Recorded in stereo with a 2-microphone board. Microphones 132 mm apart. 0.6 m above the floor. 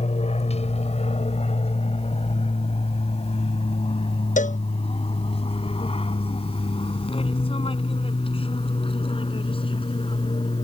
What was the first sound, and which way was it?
An aircraft, 55° left (ahead or behind).